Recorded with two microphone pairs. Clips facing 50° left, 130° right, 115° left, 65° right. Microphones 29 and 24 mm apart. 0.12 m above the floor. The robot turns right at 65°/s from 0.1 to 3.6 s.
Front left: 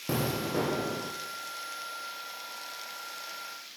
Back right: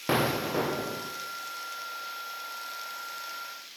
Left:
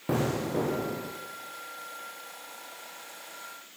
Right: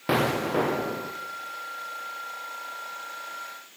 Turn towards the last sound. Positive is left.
turn(degrees=145)